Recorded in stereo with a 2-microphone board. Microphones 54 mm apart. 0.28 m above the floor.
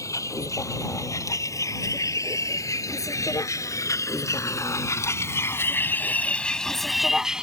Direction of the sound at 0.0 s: 75° left (ahead or behind).